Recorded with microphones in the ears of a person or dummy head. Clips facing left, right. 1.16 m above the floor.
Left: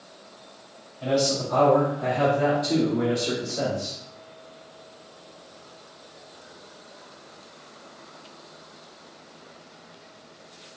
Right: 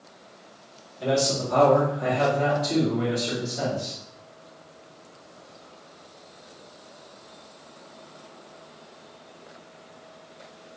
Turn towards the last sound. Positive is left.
turn(degrees=45)  # may be behind; listen again after turning